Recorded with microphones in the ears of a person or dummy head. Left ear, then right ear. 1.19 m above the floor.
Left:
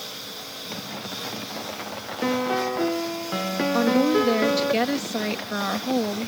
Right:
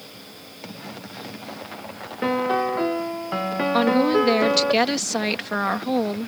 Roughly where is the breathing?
I don't hear breathing.